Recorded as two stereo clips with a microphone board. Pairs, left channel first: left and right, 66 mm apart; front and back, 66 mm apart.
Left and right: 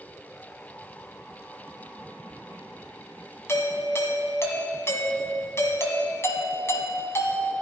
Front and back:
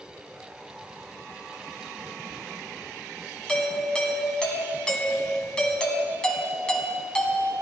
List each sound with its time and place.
3.5 s a doorbell: 70° left, 1.8 m